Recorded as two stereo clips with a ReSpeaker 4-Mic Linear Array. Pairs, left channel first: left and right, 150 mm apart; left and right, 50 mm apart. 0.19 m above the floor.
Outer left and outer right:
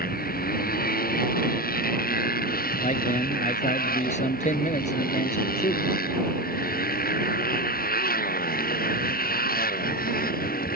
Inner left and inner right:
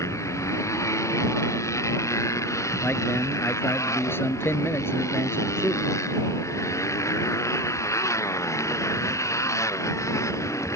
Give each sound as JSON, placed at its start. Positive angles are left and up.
{"t": 0.0, "sound": "a motorcycle", "side_deg": 80}
{"t": 2.8, "sound": "a man speaking", "side_deg": 50}